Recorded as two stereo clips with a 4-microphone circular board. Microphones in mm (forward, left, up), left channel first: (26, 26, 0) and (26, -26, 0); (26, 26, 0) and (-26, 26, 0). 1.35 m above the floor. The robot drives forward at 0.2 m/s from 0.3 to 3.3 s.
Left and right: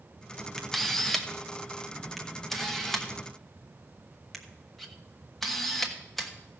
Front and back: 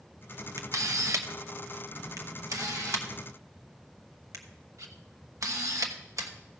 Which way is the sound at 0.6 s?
175° left.